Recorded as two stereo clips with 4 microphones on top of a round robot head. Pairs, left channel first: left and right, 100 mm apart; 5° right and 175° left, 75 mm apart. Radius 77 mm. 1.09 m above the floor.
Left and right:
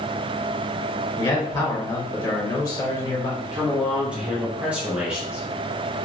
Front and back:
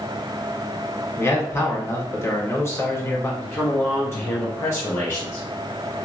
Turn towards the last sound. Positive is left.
turn(degrees=-20)